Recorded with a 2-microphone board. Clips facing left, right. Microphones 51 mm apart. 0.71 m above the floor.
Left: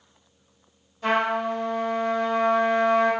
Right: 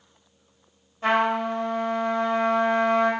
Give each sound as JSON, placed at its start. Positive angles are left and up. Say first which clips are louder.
{"t": 1.0, "sound": "a trumpet", "louder": "right 1 dB", "side_deg": -35, "distance_m": 1.5}